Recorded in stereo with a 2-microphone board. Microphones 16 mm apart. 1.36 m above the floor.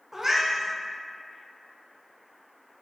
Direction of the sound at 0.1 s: 20° right (ahead or behind).